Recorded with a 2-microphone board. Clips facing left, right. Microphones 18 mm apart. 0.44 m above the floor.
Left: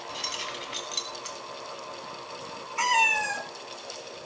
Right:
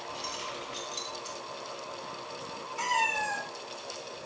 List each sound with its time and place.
0.1 s keys jangling: 50° left (ahead or behind), 2.5 m; by 1.4 s 35° left (ahead or behind), 3 m
2.8 s a cat meowing: 45° left (ahead or behind), 2.5 m